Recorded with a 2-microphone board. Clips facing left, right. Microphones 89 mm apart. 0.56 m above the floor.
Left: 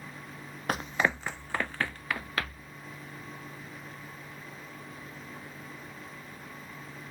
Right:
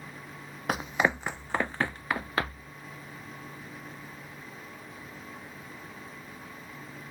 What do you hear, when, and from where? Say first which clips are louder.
0.7 s running footsteps: right 2 dB; 5° right (ahead or behind); by 2.7 s 25° right (ahead or behind)